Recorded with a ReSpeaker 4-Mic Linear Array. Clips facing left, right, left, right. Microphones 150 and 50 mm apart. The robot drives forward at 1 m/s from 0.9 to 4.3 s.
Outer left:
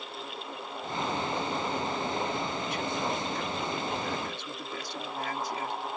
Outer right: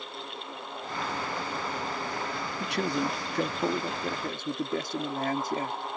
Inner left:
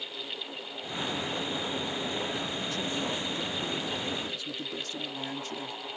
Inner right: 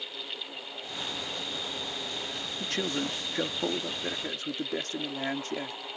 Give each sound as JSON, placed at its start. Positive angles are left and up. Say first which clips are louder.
{"t": 2.6, "sound": "a man speaking", "louder": "outer right 3 dB, inner right 1 dB", "side_deg": -75}